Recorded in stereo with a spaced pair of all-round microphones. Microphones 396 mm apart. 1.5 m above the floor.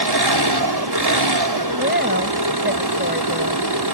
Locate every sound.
0.0 s an engine running: 75° right (ahead or behind)
1.7 s a woman speaking: 25° right (ahead or behind)